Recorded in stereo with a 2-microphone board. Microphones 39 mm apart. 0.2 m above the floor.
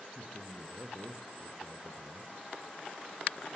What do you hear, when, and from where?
0.1 s a man speaking: 45° right (ahead or behind), 3 m